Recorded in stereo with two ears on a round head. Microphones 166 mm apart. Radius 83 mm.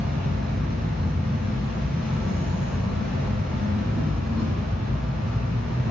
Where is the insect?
5° right (ahead or behind), 0.8 m.